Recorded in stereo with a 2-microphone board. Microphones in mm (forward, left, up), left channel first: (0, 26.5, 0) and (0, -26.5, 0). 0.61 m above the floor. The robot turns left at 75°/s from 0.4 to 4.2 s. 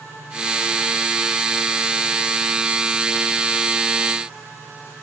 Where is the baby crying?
No baby crying in this recording.